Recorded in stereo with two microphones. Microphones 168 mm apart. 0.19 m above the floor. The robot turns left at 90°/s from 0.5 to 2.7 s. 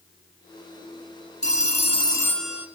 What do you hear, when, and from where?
1.4 s a phone ringing: 95° left, 1.0 m; by 2.7 s 15° right, 1.0 m